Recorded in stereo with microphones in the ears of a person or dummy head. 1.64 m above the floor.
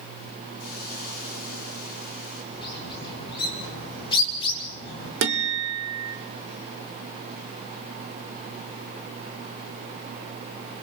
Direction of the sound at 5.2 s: 60° right (ahead or behind).